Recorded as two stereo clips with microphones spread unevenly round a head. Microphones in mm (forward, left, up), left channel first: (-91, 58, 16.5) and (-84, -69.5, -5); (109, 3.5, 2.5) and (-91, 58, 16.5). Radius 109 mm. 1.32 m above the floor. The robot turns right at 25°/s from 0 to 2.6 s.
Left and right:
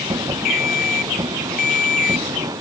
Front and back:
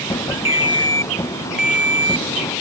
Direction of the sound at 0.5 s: 50° left.